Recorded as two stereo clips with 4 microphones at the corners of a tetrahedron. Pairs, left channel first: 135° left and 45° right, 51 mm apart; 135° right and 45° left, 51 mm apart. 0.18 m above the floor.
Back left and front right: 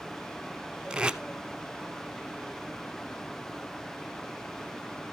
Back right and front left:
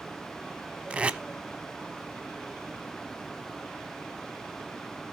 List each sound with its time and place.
0.9 s tape being pulled: 10° left, 0.6 m